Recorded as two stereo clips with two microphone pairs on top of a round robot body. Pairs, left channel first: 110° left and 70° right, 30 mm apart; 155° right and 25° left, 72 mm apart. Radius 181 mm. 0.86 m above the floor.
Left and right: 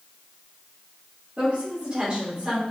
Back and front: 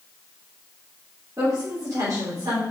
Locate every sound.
1.4 s a woman speaking: 20° right, 3.5 m; by 2.6 s 5° right, 3.5 m